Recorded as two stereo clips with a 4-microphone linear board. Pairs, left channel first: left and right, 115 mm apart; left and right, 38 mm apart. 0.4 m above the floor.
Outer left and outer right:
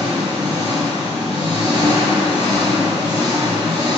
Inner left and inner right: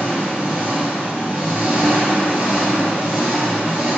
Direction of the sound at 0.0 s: 35° right (ahead or behind).